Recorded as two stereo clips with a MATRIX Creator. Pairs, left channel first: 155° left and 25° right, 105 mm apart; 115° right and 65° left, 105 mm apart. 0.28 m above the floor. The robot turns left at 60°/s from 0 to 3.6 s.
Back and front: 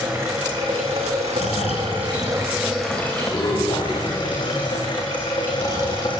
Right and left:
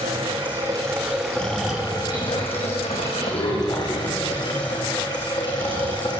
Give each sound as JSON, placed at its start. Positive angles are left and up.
{"t": 0.0, "sound": "running water", "azimuth_deg": 55, "distance_m": 7.0}
{"t": 1.3, "sound": "snoring", "azimuth_deg": 175, "distance_m": 4.5}